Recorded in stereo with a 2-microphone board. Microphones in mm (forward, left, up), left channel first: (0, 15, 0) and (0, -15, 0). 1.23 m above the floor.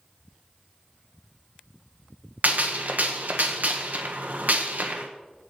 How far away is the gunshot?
About 1.1 m.